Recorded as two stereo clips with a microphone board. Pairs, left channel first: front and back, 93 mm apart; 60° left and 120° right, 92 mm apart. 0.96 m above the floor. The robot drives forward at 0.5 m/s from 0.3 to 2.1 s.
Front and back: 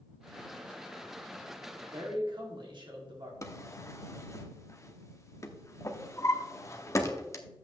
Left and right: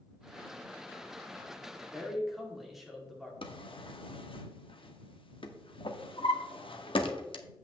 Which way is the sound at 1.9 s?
150° left.